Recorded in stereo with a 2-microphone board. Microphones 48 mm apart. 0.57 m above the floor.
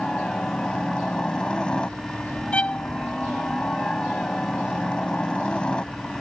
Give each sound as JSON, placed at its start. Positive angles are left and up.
{"t": 0.0, "sound": "a helicopter", "side_deg": 20}
{"t": 2.5, "sound": "a violin", "side_deg": 25}